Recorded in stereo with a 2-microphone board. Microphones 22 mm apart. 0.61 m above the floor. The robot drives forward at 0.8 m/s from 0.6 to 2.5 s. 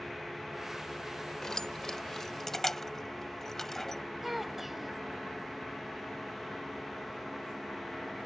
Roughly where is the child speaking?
Centre.